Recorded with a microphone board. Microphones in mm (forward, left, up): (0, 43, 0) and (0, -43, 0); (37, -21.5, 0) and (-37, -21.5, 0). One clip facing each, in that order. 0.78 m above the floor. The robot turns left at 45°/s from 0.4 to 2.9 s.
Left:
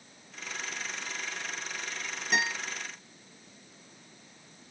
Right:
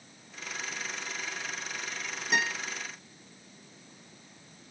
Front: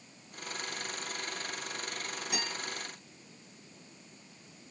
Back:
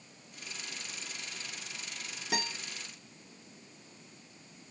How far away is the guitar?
About 1.2 m.